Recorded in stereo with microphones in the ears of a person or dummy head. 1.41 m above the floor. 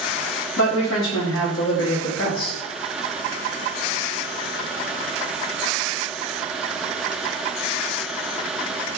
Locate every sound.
0.6 s a man speaking: 70° left (ahead or behind), 1.1 m